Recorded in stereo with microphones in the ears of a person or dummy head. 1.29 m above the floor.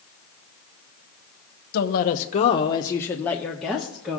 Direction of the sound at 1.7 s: 55° left (ahead or behind).